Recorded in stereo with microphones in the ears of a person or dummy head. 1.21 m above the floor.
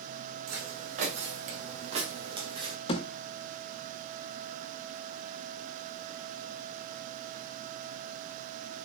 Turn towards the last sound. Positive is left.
turn(degrees=35)  # may be behind; listen again after turning